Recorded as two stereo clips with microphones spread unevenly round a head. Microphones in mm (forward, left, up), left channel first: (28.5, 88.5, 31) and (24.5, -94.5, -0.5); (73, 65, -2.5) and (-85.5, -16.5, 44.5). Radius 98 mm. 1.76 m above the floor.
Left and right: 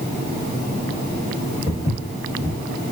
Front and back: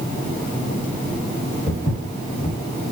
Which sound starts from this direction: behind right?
Footsteps, at 1.7 s.